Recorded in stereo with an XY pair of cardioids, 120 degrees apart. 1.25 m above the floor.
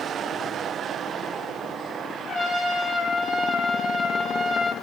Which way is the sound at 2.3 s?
45° left.